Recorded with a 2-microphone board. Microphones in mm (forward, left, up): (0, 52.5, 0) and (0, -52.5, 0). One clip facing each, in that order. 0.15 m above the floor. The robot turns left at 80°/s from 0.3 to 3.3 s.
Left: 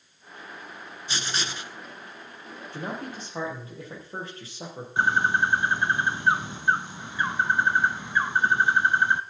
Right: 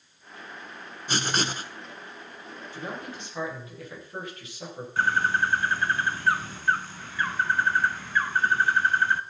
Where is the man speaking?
85° left, 5 m; by 4.9 s 35° left, 5 m.